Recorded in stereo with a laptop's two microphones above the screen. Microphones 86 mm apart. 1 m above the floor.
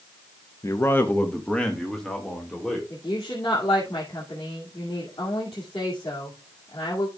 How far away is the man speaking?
About 0.6 m.